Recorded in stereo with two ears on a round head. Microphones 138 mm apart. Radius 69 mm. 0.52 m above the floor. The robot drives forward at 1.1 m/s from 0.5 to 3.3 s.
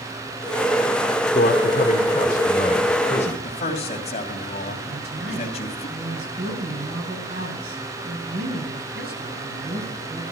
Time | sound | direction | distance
1.4 | a man speaking | 45° left (ahead or behind) | 1.2 m
3.4 | a man speaking | 40° left (ahead or behind) | 2.5 m
4.9 | a woman speaking | 70° right (ahead or behind) | 4.5 m